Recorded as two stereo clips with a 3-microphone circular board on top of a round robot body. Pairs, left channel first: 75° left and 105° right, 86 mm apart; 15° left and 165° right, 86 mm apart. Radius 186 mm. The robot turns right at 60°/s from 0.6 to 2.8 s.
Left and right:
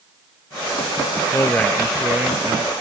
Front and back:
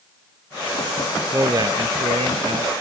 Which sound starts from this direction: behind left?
A man speaking, at 1.3 s.